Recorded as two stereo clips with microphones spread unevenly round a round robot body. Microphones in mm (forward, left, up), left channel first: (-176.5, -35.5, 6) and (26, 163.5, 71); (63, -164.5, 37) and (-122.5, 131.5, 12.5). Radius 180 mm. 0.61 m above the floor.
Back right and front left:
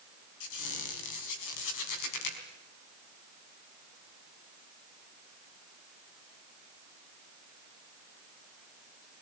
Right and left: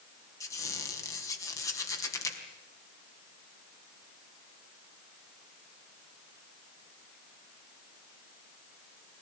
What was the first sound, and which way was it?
A squeak, 140° right.